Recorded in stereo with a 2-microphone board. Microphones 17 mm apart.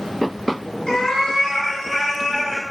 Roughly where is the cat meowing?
Left.